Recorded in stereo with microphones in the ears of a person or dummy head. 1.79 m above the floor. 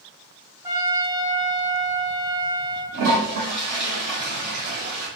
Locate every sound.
0.6 s a trumpet: 20° right (ahead or behind), 1.1 m
2.9 s a toilet flushing: 50° right (ahead or behind), 2.0 m